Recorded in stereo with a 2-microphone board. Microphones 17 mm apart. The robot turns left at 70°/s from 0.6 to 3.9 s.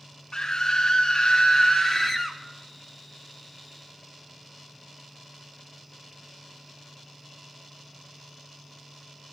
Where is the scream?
130° left, 1.3 m; by 2.4 s 5° left, 1.3 m.